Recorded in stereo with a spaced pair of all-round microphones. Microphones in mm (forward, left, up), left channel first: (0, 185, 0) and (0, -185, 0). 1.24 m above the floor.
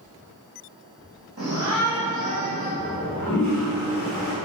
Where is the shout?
40° right (ahead or behind), 2.5 m; by 2.7 s 25° right (ahead or behind), 2.5 m.